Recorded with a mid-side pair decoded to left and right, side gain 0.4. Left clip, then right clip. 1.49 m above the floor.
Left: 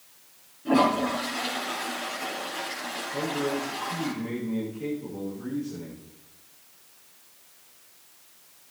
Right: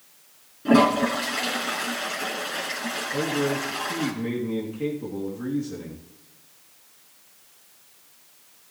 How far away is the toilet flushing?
About 4 m.